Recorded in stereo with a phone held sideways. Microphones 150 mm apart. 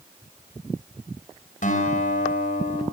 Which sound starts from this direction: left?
A guitar, at 1.6 s.